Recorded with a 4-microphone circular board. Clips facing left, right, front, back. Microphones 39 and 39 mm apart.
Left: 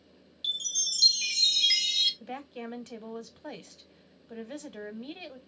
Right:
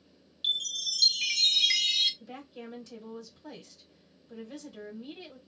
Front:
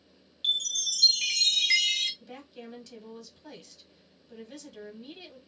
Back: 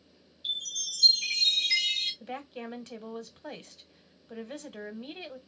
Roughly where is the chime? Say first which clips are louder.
Right 2 dB, front 6 dB; ahead.